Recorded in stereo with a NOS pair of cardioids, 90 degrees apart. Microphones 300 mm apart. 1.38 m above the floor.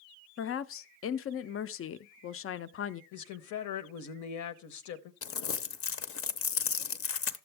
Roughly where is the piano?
I don't hear a piano.